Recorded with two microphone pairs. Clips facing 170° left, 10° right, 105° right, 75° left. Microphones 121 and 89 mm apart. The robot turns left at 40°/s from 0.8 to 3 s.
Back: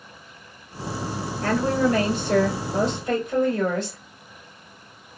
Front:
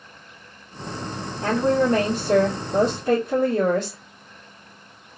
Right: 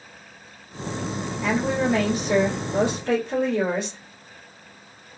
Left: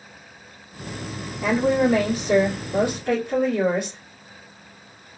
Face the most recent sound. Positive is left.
turn(degrees=-5)